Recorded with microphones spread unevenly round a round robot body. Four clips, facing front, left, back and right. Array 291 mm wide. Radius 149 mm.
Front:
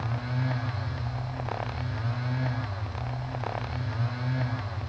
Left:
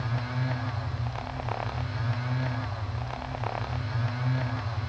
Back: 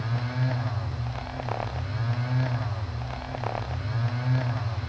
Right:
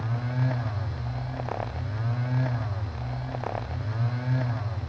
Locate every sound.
Only background noise.